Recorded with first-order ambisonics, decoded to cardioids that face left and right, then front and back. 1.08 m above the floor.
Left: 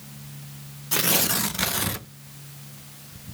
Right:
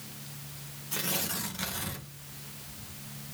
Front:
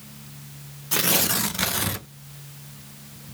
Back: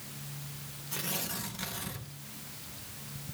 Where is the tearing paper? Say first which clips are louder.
Left 10 dB, front 14 dB; 40° left, 0.6 m.